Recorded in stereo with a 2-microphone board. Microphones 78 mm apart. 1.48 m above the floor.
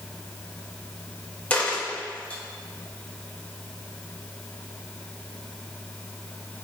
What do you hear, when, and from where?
1.5 s a dropped coin: 15° left (ahead or behind), 0.8 m